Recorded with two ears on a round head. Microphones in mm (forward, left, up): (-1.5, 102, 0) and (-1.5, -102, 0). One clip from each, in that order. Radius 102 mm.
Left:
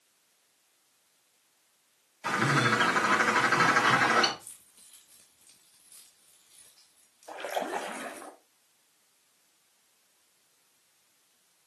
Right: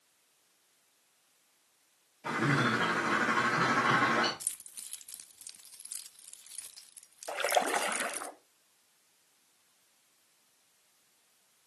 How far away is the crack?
No crack in this recording.